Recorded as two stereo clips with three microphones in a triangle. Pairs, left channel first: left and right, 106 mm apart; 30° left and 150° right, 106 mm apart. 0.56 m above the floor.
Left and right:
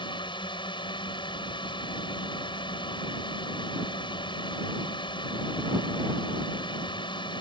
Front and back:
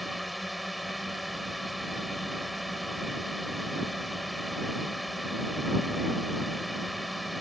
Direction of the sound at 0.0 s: 120° left.